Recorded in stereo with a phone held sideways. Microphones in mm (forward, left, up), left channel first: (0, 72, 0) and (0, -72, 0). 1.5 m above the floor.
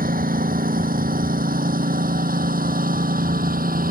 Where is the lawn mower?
80° right.